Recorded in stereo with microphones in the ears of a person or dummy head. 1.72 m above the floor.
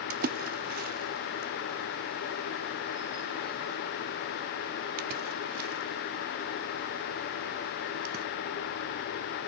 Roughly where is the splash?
Right.